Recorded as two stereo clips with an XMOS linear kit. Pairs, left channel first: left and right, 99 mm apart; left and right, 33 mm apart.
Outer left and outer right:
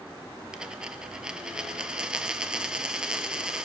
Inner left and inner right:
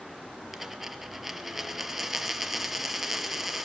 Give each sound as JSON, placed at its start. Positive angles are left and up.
{"t": 0.5, "sound": "a dropped coin", "side_deg": -10, "distance_m": 0.7}